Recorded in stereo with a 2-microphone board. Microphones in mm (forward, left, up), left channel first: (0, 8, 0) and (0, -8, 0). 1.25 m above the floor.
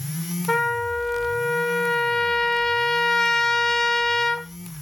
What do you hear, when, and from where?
0.5 s a trumpet: 30° left (ahead or behind), 0.8 m